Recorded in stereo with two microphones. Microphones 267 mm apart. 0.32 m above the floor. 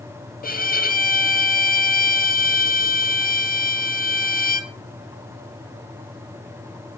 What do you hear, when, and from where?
0.4 s a violin: 35° left (ahead or behind), 1.1 m